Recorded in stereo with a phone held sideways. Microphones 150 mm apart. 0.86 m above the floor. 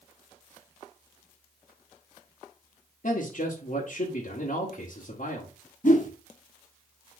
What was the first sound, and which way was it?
A man speaking, 60° left (ahead or behind).